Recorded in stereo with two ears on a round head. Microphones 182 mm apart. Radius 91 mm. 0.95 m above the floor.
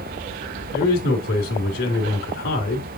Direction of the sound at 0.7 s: 65° left (ahead or behind).